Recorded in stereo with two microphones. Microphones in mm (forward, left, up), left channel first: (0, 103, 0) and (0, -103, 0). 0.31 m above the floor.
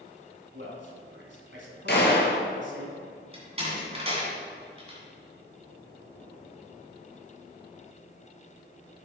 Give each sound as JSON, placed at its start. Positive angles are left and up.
{"t": 0.5, "sound": "a man speaking", "side_deg": -65, "distance_m": 2.0}
{"t": 1.9, "sound": "a gunshot", "side_deg": 55, "distance_m": 1.5}
{"t": 3.3, "sound": "a door slam", "side_deg": -30, "distance_m": 2.0}